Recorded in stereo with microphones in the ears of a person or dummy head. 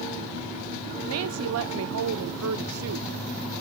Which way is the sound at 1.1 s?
75° right (ahead or behind).